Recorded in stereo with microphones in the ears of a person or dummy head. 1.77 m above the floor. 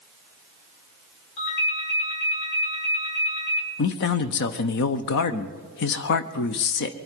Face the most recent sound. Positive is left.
turn(degrees=60)  # may be behind; listen again after turning